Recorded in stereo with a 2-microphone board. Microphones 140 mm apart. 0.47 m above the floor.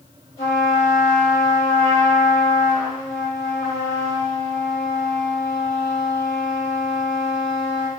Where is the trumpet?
20° left (ahead or behind), 2.5 m.